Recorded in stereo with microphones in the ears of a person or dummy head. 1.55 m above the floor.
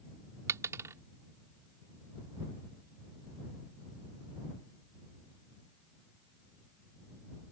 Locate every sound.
0.5 s a dropped coin: 15° right (ahead or behind)